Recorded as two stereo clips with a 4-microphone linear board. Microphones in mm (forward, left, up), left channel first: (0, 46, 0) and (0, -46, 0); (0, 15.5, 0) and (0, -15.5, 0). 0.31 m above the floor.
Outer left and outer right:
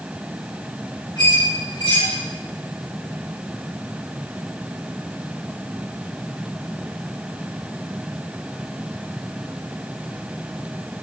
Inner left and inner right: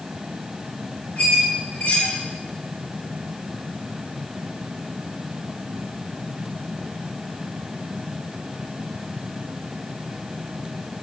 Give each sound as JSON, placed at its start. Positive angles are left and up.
{"t": 1.2, "sound": "a squeak", "side_deg": 55, "distance_m": 3.5}